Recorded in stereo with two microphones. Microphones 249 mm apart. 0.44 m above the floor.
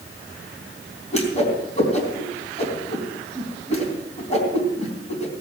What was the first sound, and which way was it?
A whoosh, 30° left (ahead or behind).